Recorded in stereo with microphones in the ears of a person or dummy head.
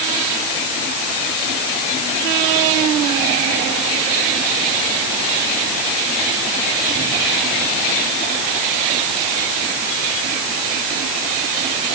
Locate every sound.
Only background noise.